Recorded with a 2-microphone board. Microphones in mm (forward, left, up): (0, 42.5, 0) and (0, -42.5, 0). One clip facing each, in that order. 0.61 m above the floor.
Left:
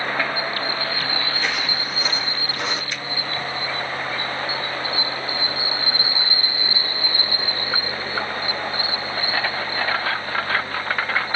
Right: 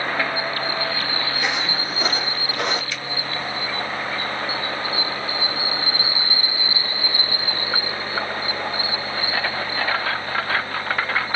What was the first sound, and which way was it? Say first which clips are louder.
Footsteps: right 1 dB; 10° right (ahead or behind).